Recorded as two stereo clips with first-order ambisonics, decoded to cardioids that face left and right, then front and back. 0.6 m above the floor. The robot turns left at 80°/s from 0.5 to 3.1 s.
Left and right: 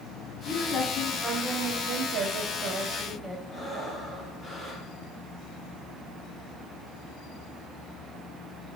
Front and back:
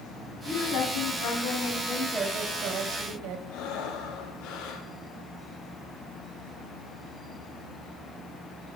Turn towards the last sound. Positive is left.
turn(degrees=0)